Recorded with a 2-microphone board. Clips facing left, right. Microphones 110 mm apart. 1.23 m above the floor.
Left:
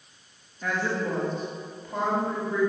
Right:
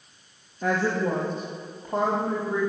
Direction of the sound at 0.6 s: 30° right (ahead or behind).